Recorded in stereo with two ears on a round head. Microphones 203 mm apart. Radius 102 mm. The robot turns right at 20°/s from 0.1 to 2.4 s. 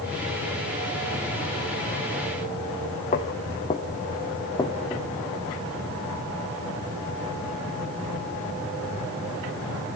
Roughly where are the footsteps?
Left.